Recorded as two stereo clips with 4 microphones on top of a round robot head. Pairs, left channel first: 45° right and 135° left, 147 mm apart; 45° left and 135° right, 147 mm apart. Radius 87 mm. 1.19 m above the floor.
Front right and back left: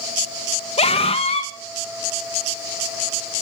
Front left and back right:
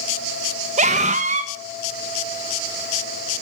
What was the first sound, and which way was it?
A scream, 95° right.